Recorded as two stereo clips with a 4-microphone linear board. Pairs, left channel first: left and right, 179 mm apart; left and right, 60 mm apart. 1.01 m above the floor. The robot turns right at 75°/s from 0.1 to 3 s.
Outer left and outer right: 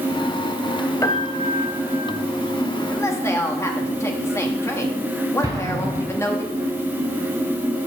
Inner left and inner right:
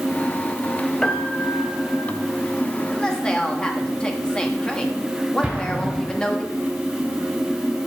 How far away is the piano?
About 1.1 m.